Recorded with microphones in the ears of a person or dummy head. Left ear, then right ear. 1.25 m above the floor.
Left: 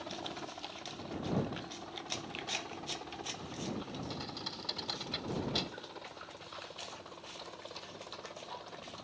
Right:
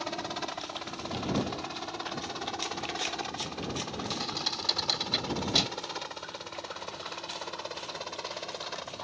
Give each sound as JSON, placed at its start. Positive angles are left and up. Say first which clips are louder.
{"t": 0.0, "sound": "a helicopter", "louder": "right 8 dB", "side_deg": -65}
{"t": 4.1, "sound": "a thud", "louder": "right 12 dB", "side_deg": -20}